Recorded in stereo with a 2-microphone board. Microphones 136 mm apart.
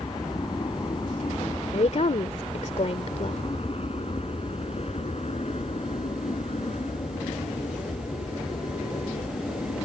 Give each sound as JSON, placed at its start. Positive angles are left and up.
{"t": 0.0, "sound": "an aircraft", "side_deg": 35}
{"t": 1.7, "sound": "a woman speaking", "side_deg": 55}